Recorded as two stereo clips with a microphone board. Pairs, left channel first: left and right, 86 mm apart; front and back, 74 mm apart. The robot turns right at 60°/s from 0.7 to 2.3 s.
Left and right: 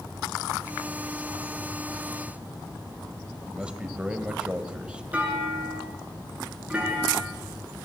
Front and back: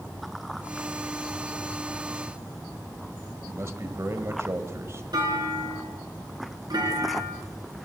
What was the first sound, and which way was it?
A man speaking, 160° right.